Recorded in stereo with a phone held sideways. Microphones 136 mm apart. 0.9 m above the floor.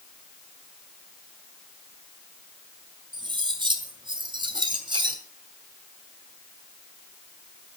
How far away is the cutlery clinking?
About 3 m.